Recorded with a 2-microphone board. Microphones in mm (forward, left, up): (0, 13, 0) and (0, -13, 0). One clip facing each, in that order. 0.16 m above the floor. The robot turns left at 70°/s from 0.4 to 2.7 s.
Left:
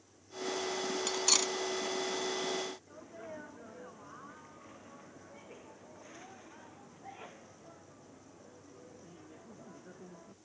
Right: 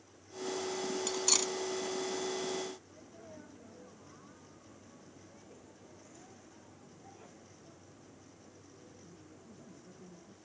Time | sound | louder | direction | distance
1.1 | cutlery clinking | left 2 dB | 20° left (ahead or behind) | ?
2.9 | a sneeze | left 5 dB | 50° left (ahead or behind) | ?